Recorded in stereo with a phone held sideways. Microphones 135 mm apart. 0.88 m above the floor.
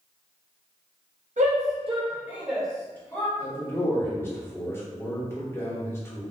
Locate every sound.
1.4 s a shout: 70° right (ahead or behind), 0.8 m; by 3.3 s 20° left (ahead or behind), 1.2 m
3.4 s a man speaking: 20° left (ahead or behind), 0.9 m